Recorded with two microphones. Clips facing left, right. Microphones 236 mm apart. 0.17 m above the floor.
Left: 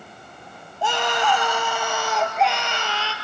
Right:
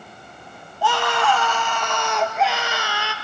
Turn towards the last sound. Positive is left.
turn(degrees=-15)  # may be behind; listen again after turning